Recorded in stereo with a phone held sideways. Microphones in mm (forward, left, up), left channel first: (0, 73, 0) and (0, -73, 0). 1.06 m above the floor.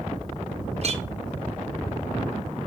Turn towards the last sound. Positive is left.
turn(degrees=-50)  # may be behind; listen again after turning